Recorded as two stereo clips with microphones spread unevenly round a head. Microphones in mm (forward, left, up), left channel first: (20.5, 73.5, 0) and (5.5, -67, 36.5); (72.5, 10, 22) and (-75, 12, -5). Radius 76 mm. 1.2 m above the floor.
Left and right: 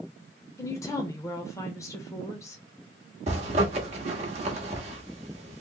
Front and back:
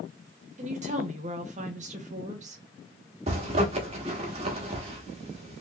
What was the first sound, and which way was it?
A woman speaking, 145° left.